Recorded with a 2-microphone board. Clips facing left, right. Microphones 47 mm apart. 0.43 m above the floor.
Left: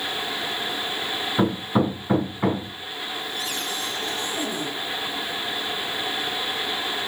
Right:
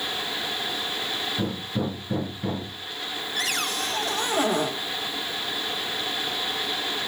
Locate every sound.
1.4 s hammering: 75° left (ahead or behind), 2.5 m
3.4 s a cupboard door: 70° right (ahead or behind), 1.2 m